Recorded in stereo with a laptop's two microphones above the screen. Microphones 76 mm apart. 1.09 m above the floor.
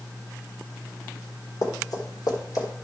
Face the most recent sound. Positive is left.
turn(degrees=50)  # may be behind; listen again after turning